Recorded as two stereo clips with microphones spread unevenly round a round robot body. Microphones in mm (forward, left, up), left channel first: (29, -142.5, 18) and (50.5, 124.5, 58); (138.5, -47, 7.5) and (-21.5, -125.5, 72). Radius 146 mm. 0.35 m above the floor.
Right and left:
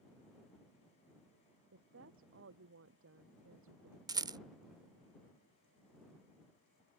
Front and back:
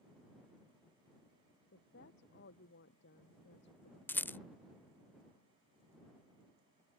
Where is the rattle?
10° left.